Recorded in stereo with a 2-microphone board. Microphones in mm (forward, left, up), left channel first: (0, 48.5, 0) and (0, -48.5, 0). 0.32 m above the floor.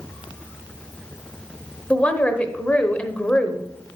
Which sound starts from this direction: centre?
A woman speaking, at 1.9 s.